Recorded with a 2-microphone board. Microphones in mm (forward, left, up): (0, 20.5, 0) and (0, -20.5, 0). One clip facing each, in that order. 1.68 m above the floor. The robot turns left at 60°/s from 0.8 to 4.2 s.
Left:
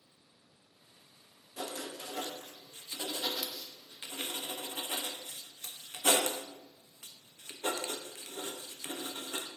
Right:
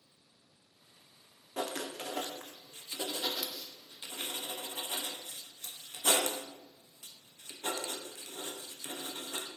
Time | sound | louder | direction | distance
1.6 | writing | right 3 dB | 55° right (ahead or behind) | 0.7 m